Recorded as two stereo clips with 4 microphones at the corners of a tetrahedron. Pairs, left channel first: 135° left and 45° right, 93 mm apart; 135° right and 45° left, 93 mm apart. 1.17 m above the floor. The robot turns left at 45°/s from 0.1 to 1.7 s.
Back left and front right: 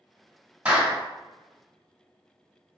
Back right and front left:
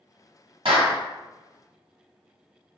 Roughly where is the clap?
Ahead left.